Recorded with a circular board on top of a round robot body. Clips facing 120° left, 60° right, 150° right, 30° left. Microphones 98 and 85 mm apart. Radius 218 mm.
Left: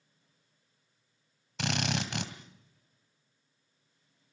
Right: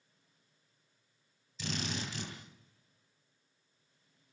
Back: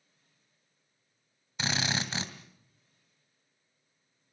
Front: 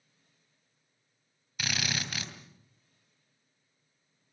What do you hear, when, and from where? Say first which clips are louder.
1.6 s a drill: left 6 dB, back 3 dB; 145° left, 2.5 m